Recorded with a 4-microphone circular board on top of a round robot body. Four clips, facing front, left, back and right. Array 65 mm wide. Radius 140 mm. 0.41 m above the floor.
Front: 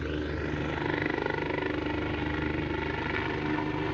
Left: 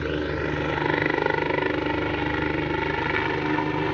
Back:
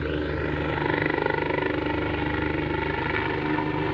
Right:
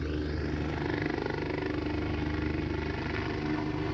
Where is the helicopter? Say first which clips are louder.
Left 8 dB, back 5 dB; 115° left.